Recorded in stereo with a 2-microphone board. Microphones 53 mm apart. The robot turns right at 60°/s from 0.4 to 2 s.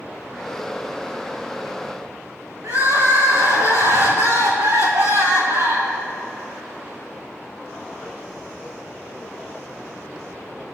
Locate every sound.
2.6 s crying: 75° right (ahead or behind), 2.5 m